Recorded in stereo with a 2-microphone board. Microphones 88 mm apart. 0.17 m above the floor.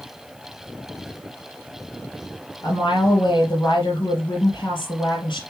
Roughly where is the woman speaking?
Left.